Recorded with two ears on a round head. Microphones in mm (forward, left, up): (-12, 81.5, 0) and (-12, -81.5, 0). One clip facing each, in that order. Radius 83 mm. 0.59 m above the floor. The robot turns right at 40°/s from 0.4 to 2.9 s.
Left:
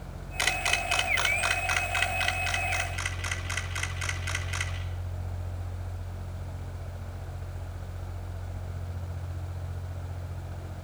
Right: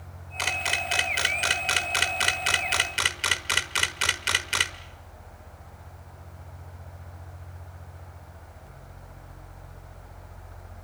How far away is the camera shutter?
About 1.5 m.